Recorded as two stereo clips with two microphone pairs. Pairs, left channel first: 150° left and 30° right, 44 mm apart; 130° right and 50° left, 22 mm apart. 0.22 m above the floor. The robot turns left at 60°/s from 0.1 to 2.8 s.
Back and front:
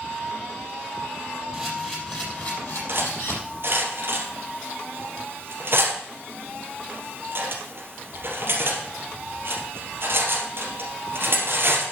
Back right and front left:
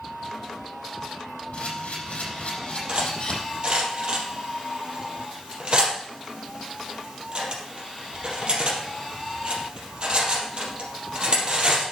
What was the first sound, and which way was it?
A camera shutter, 110° right.